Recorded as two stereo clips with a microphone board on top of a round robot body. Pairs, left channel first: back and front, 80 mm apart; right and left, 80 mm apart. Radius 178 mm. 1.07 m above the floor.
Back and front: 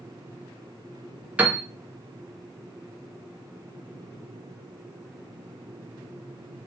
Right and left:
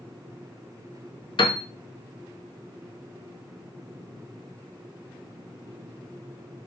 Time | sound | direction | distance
1.4 | a piano | 75° right | 0.8 m